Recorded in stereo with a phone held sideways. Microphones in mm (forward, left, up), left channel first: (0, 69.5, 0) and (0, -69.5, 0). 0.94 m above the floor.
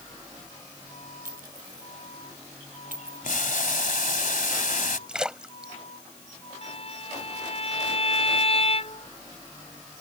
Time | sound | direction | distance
1.2 | a clink | 85° right | ?
3.2 | boiling | 70° left (ahead or behind) | ?
5.1 | a splash | 5° right (ahead or behind) | ?
6.6 | a violin | 45° left (ahead or behind) | ?